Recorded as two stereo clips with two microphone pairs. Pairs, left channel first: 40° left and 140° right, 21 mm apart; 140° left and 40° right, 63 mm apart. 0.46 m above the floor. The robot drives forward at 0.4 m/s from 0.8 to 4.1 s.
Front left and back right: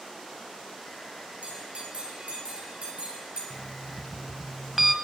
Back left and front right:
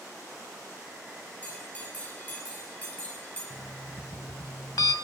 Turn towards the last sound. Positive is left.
turn(degrees=145)